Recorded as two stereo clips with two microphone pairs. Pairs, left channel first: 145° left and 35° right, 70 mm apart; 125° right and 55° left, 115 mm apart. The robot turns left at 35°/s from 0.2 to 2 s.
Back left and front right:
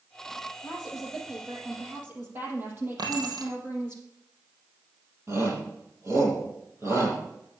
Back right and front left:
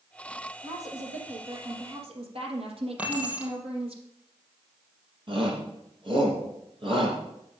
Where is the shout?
10° left, 6 m.